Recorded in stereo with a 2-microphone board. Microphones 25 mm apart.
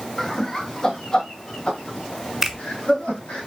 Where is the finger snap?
10° right (ahead or behind), 1.2 m.